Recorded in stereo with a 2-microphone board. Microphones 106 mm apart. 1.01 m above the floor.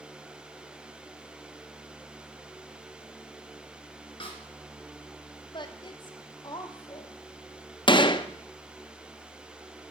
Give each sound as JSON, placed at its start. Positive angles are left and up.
{"t": 4.2, "sound": "a snare drum", "side_deg": 50, "distance_m": 2.0}
{"t": 5.5, "sound": "a woman speaking", "side_deg": 45, "distance_m": 1.0}
{"t": 7.9, "sound": "a gunshot", "side_deg": 45, "distance_m": 0.5}